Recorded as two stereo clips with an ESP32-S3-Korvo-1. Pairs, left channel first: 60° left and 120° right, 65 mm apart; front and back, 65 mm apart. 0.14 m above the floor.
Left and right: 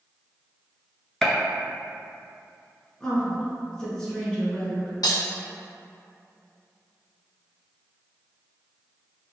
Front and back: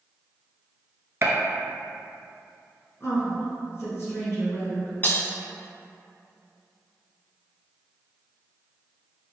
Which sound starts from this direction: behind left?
A gunshot, at 1.2 s.